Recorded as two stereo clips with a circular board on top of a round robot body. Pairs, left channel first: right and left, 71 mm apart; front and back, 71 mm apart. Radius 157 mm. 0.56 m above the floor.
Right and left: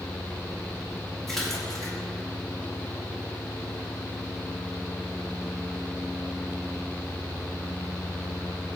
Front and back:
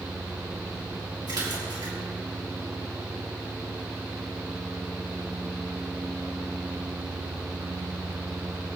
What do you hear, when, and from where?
1.3 s a splash: 175° right, 5 m